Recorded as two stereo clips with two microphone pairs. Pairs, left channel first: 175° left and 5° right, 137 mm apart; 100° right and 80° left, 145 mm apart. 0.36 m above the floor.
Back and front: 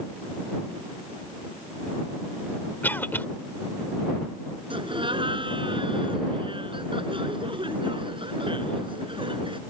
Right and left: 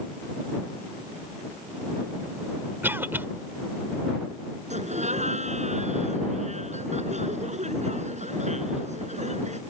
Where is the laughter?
45° left.